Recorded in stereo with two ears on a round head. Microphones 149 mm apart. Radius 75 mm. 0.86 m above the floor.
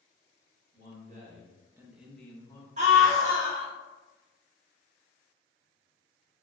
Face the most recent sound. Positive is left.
turn(degrees=-45)  # may be behind; listen again after turning